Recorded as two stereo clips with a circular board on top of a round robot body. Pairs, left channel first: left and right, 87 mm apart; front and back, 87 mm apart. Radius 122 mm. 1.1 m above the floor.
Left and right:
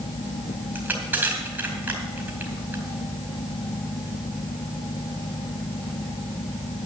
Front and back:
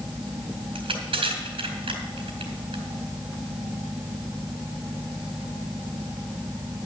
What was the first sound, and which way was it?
Crushing, 160° right.